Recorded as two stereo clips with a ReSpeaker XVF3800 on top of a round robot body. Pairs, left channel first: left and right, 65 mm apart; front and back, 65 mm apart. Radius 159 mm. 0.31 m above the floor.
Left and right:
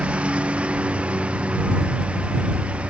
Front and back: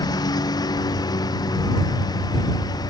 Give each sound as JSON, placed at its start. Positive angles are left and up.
{"t": 0.0, "sound": "a lawn mower", "azimuth_deg": -15}